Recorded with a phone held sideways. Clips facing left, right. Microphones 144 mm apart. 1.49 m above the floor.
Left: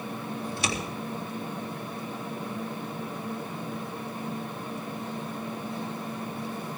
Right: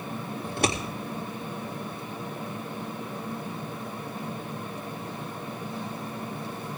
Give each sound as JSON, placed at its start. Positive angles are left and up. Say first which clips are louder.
{"t": 0.4, "sound": "scissors", "louder": "right 6 dB", "side_deg": -55, "distance_m": 2.5}